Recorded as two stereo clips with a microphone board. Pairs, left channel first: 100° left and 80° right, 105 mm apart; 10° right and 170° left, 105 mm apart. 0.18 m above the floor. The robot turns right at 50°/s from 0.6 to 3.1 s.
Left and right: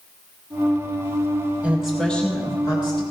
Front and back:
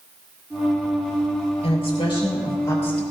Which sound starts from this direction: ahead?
A woman speaking, at 1.6 s.